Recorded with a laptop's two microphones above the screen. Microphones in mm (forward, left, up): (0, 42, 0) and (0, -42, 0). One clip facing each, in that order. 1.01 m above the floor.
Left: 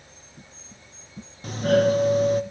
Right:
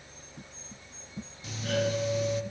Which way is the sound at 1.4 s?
50° left (ahead or behind).